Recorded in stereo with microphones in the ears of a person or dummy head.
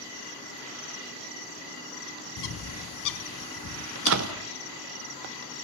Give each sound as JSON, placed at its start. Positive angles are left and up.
{"t": 2.4, "sound": "a bird", "side_deg": 65, "distance_m": 0.9}
{"t": 4.0, "sound": "a door slam", "side_deg": -70, "distance_m": 1.5}